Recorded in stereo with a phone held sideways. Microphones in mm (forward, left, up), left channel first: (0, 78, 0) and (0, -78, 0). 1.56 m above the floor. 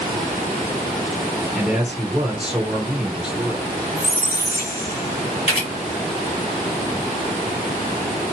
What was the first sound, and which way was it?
A man speaking, 5° right (ahead or behind).